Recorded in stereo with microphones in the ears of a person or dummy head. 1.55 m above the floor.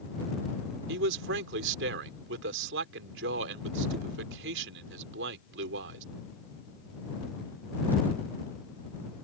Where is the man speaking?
75° right (ahead or behind).